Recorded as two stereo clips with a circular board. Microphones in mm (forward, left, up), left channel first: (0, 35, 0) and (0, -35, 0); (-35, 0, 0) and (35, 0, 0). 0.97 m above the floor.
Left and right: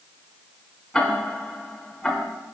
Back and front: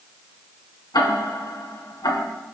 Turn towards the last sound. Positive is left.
turn(degrees=170)